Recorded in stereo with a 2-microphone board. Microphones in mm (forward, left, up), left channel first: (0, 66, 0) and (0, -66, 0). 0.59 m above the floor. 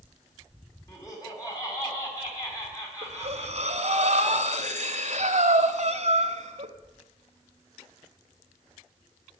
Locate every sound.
0.9 s laughter: 25° left (ahead or behind), 4.5 m
3.0 s breathing: 60° right (ahead or behind), 0.9 m